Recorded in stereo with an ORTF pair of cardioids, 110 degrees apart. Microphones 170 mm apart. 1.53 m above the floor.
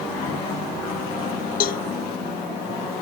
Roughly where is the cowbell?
Ahead left.